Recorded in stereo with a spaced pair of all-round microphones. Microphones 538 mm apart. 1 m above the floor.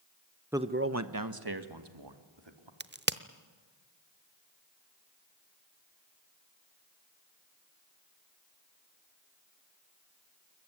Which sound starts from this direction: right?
A crack, at 2.8 s.